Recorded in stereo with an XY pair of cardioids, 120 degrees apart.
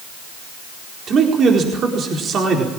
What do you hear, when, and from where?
1.1 s a man speaking: 45° right, 4.5 m